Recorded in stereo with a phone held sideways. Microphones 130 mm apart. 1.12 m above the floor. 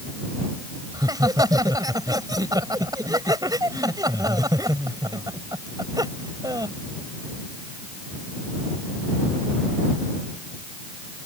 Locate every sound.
0.9 s laughter: 30° right (ahead or behind)